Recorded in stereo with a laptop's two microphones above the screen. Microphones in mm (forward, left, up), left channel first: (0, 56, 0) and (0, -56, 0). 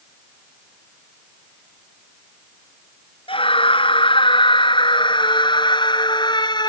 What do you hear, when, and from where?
3.3 s a scream: 55° left (ahead or behind); by 6.7 s 40° left (ahead or behind)